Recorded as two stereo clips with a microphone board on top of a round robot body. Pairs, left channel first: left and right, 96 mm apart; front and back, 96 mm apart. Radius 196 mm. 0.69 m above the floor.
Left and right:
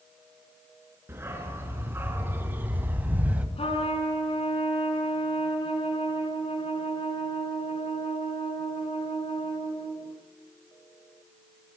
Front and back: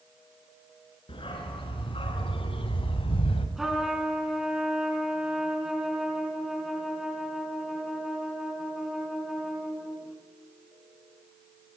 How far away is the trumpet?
About 4 m.